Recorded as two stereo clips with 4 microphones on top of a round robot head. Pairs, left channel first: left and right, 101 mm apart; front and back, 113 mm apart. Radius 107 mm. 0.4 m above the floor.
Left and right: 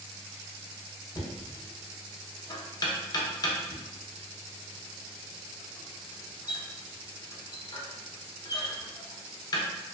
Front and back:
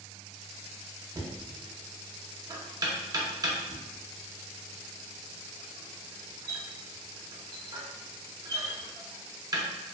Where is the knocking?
130° left, 0.7 m.